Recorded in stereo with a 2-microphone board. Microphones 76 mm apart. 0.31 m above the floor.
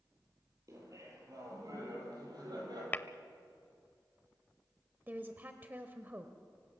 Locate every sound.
0.7 s laughter: 45° right (ahead or behind), 9 m; by 2.8 s 60° right (ahead or behind), 10 m
2.9 s tapping: 25° left (ahead or behind), 0.6 m
5.1 s a woman speaking: 25° right (ahead or behind), 1.3 m